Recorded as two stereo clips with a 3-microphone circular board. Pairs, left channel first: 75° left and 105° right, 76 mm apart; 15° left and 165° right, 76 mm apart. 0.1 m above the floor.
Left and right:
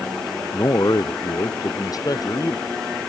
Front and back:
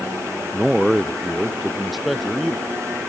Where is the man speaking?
110° left.